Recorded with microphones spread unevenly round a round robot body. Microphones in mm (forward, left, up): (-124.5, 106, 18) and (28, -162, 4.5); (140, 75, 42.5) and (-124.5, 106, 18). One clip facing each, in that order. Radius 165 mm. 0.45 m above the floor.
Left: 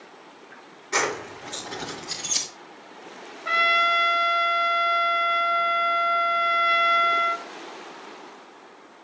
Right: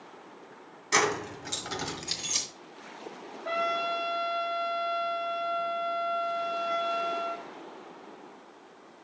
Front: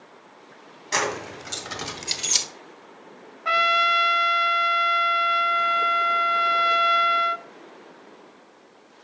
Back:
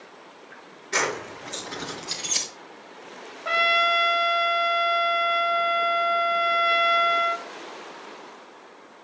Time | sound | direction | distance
0.9 | keys jangling | 25° right | 2.5 m
3.5 | a trumpet | 55° left | 0.6 m